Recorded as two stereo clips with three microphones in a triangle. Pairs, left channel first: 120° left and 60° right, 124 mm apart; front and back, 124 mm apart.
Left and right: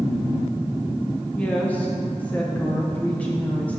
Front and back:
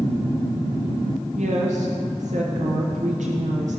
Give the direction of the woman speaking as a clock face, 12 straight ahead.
5 o'clock.